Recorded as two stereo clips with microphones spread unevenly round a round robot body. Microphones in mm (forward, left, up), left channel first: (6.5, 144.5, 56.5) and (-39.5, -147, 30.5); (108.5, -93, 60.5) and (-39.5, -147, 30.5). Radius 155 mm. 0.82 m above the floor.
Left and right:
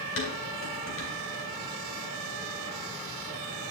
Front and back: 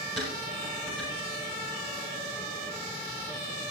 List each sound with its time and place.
0.2 s dishes clattering: 130° left, 3 m